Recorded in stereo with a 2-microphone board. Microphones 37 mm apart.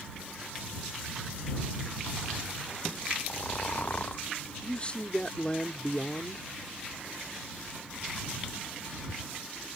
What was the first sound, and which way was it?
Snoring, 50° left (ahead or behind).